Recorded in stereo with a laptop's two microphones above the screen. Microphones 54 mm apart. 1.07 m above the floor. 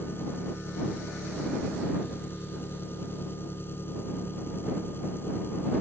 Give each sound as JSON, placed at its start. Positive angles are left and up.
{"t": 0.0, "sound": "an engine running", "side_deg": 45}